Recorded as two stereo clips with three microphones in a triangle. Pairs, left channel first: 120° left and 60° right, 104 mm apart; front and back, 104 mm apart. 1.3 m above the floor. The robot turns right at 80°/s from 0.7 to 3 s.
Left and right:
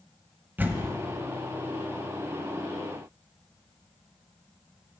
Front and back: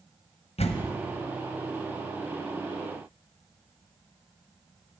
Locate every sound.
0.6 s a door slam: 10° left, 0.7 m; by 0.9 s 30° left, 0.7 m